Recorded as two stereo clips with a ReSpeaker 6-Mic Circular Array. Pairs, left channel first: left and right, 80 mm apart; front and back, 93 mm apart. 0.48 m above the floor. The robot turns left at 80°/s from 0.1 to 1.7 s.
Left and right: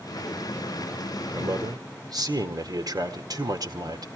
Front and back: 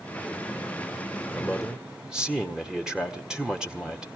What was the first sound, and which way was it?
A man speaking, 70° right.